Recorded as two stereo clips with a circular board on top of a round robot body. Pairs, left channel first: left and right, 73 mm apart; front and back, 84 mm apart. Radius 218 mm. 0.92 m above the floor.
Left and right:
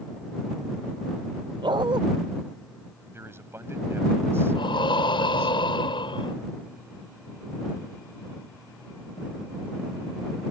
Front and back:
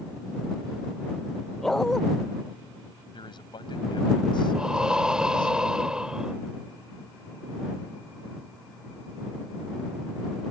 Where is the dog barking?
85° right.